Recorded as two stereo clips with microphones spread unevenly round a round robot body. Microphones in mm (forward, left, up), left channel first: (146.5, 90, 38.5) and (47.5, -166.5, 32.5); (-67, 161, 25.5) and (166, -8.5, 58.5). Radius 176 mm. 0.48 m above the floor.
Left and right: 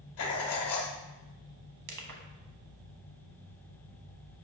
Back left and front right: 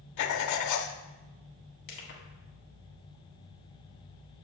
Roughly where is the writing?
Behind left.